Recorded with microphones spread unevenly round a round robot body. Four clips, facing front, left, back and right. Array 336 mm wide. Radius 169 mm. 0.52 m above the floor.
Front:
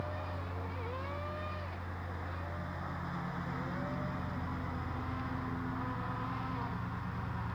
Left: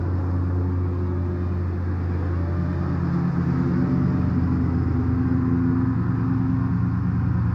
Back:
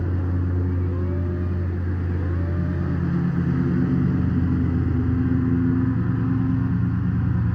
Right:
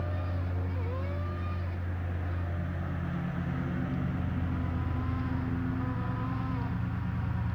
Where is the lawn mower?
135° left.